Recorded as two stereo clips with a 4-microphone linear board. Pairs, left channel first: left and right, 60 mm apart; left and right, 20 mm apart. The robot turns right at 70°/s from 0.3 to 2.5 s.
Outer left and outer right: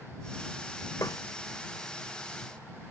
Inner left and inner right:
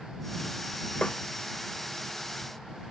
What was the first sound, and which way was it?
A snare drum, 70° left (ahead or behind).